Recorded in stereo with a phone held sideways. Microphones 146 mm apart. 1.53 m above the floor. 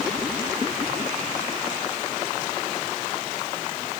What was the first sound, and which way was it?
Only background noise.